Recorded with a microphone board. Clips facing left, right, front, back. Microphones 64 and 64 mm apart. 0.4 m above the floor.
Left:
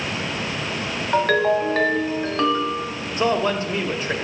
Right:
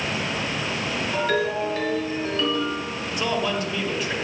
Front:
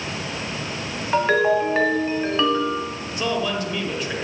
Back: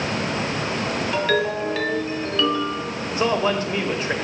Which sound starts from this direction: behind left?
A man speaking, at 3.1 s.